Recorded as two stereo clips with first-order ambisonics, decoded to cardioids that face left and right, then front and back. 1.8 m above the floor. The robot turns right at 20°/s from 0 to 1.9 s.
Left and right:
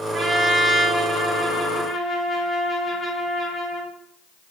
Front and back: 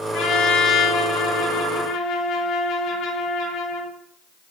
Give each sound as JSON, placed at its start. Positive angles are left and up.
{"t": 0.1, "sound": "a trumpet", "azimuth_deg": -20, "distance_m": 1.1}